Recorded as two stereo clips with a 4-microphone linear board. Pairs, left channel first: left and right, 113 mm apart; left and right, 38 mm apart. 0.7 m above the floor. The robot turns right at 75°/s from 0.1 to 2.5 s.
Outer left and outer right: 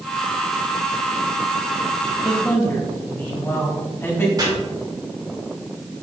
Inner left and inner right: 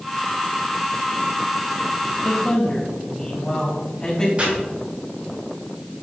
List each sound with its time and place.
2.2 s a man speaking: 35° left (ahead or behind), 1.8 m; by 4.3 s 20° left (ahead or behind), 1.8 m
4.4 s chopping: 35° right (ahead or behind), 1.9 m